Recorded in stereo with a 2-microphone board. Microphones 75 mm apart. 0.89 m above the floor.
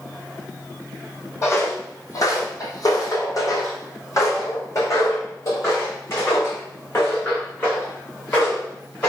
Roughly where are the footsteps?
Left.